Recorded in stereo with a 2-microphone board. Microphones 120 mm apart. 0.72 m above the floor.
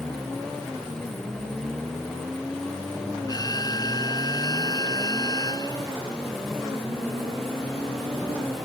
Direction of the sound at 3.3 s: 35° left (ahead or behind).